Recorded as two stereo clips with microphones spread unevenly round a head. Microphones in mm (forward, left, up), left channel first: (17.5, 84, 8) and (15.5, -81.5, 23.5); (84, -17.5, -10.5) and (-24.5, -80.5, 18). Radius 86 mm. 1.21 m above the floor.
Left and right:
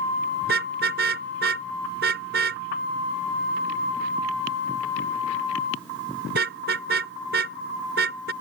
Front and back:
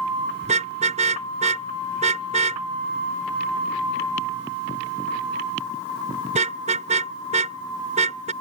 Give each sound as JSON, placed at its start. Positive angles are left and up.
{"t": 0.4, "sound": "a car horn", "azimuth_deg": -125}